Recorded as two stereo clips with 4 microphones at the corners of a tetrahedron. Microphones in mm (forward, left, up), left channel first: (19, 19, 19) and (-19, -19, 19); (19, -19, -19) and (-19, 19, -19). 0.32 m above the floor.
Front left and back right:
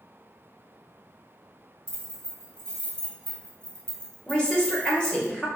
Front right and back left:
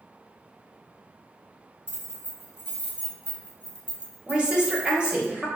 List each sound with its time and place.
1.9 s keys jangling: 20° right, 1.2 m
4.3 s a woman speaking: 100° left, 0.9 m